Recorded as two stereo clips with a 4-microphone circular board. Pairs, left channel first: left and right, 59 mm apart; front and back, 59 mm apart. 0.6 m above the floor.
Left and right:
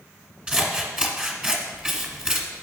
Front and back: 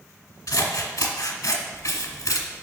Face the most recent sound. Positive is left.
turn(degrees=-15)